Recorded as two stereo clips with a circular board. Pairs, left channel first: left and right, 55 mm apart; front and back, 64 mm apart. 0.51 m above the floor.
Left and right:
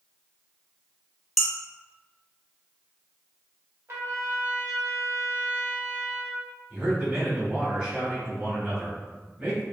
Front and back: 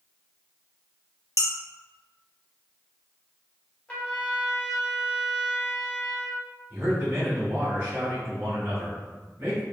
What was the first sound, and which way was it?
Dishes clattering, straight behind.